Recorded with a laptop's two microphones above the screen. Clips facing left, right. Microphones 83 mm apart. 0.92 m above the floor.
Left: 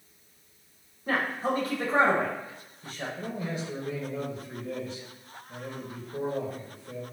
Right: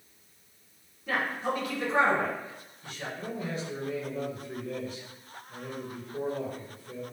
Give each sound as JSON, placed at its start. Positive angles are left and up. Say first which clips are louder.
{"t": 1.1, "sound": "a man speaking", "louder": "left 2 dB", "side_deg": 35, "distance_m": 0.7}
{"t": 3.2, "sound": "a man speaking", "louder": "even", "side_deg": 40, "distance_m": 0.6}